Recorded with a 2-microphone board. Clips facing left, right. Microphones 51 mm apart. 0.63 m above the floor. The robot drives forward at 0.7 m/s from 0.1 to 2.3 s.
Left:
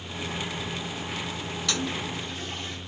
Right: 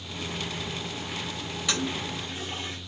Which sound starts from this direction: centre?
A toilet flushing, at 1.7 s.